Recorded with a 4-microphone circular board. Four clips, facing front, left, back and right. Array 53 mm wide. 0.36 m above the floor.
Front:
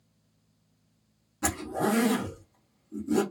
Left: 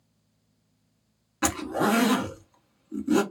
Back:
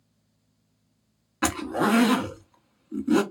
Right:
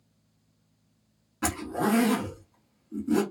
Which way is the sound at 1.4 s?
160° left.